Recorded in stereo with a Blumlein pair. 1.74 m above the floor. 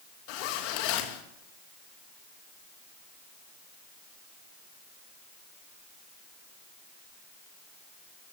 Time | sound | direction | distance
0.3 | a zipper | 45° left | 2.5 m